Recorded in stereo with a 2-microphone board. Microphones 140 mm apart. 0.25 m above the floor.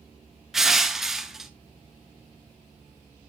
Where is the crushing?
5° right (ahead or behind), 0.9 m.